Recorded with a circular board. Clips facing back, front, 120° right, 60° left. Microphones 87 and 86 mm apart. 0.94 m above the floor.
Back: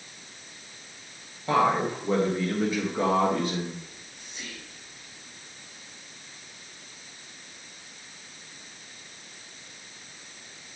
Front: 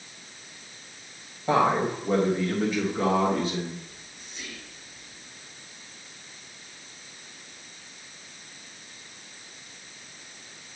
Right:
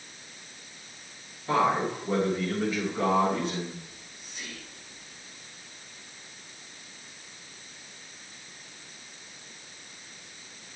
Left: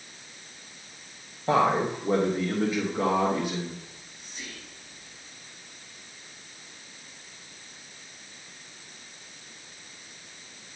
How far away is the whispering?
About 3.5 m.